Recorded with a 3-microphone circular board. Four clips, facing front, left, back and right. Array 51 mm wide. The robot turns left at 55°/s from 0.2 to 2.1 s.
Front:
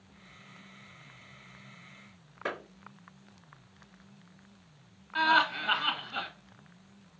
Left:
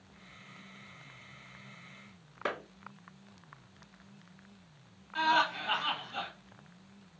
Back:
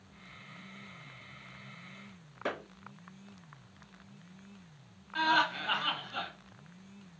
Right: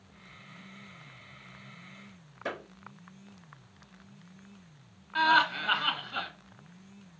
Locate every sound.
2.5 s a clap: 90° left, 2.5 m
5.2 s laughter: 55° right, 1.3 m